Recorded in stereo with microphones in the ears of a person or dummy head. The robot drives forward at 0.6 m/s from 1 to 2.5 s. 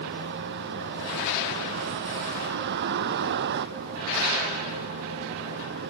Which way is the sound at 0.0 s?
60° right (ahead or behind).